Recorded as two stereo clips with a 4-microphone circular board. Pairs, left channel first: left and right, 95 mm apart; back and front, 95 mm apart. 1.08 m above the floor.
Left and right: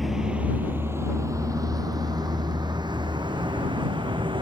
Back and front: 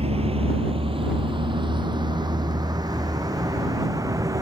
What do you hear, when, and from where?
0.0 s a vehicle: straight ahead; by 4.4 s 55° right